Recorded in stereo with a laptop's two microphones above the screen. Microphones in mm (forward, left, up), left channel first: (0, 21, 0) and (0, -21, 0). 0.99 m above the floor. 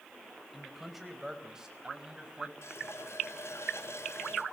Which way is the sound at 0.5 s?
Centre (ahead or behind).